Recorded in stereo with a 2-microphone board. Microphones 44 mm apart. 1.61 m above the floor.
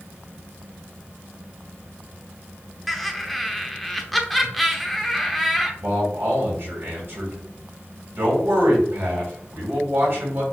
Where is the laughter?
Centre (ahead or behind), 0.7 m.